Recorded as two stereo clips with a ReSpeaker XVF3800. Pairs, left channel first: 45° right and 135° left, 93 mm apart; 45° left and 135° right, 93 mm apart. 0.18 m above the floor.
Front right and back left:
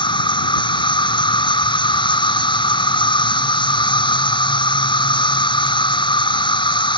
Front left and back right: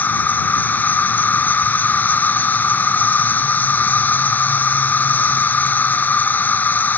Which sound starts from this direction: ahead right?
An insect, at 0.0 s.